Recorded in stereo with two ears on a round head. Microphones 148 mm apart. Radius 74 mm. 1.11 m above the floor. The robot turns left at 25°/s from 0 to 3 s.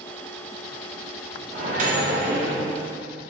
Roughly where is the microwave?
Right.